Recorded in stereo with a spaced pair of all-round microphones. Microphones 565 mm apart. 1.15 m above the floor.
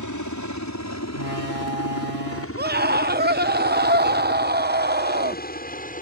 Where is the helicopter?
30° left (ahead or behind); by 6.0 s 15° left (ahead or behind).